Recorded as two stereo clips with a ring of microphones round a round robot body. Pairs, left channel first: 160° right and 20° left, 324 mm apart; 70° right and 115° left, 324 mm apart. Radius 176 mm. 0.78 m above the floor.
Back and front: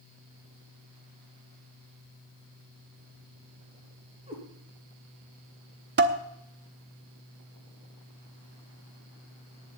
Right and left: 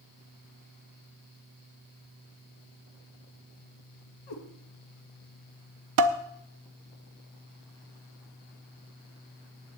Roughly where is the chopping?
No chopping in this recording.